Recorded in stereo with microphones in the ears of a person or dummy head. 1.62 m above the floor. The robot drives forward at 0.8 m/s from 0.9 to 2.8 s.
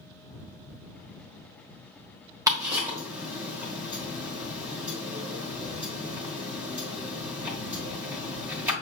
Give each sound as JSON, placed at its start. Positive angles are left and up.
{"t": 2.5, "sound": "ticking", "side_deg": -20, "distance_m": 1.2}